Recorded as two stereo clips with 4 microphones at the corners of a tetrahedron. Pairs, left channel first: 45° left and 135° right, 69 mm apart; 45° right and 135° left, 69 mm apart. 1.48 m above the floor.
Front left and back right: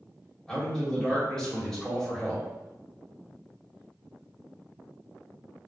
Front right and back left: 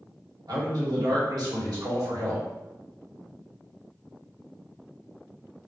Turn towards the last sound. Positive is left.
turn(degrees=125)